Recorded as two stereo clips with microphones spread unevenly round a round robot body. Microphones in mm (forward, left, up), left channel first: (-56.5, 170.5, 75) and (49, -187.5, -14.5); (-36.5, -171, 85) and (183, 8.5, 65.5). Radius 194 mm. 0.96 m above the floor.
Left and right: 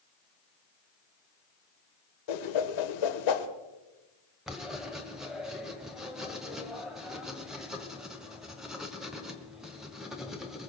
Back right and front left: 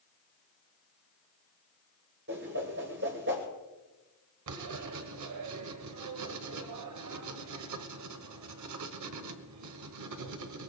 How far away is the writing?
About 1.4 m.